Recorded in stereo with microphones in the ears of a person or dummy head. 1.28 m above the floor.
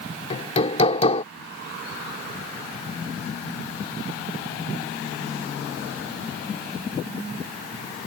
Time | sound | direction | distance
0.3 | hammering | 40° left (ahead or behind) | ?